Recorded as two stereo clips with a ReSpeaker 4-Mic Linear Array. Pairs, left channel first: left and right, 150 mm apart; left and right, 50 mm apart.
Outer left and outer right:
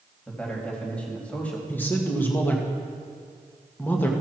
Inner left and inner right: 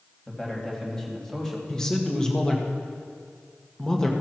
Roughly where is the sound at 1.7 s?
Centre.